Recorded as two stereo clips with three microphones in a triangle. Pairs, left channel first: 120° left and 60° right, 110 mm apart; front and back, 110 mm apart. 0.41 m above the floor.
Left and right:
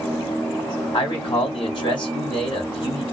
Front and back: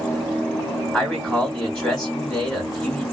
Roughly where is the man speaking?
Left.